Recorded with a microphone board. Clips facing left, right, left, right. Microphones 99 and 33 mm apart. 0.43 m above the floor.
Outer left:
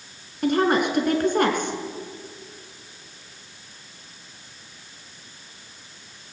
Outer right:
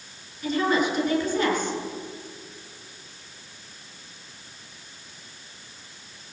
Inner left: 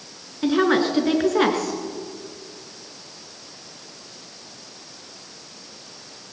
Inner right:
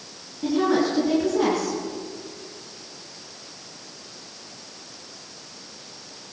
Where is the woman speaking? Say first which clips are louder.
Outer left 3 dB, inner left 2 dB; 55° left (ahead or behind), 5 m.